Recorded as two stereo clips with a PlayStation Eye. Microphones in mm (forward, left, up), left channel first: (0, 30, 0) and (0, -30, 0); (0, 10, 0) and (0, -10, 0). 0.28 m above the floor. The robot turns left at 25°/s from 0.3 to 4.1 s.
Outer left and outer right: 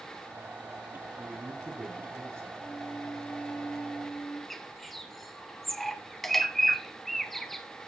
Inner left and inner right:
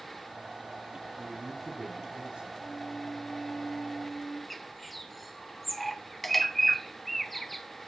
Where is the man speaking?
20° right, 2.5 m; by 2.5 s 50° right, 2.5 m.